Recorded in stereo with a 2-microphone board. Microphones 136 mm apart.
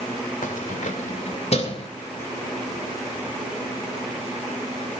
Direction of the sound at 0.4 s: 85° left.